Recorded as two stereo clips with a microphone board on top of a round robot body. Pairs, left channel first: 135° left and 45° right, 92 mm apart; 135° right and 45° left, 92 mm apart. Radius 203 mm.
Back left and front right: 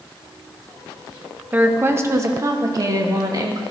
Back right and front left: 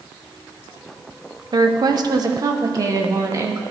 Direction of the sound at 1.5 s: 20° left.